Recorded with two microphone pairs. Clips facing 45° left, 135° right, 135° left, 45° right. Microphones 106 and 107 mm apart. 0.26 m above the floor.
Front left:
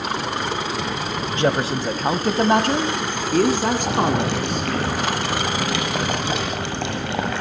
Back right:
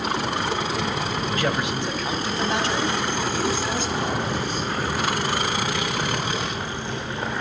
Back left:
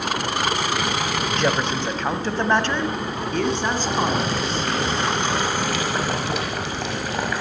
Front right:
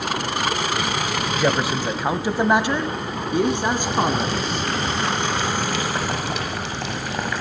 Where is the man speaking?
30° left, 1.0 m.